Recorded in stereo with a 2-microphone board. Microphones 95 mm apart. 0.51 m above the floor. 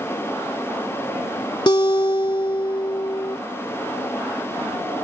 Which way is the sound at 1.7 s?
55° left (ahead or behind).